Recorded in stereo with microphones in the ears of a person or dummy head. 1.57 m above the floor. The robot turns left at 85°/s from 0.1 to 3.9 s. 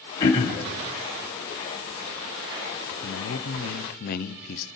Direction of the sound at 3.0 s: 130° left.